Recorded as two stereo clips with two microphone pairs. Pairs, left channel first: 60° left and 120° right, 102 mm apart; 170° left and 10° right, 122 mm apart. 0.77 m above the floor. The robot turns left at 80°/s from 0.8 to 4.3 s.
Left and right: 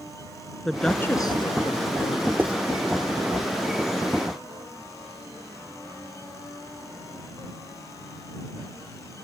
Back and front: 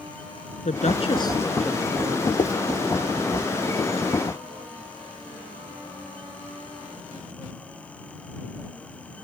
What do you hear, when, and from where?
0.7 s a woman speaking: 150° left; by 2.3 s 30° left
2.4 s writing: 170° left; by 2.5 s 160° left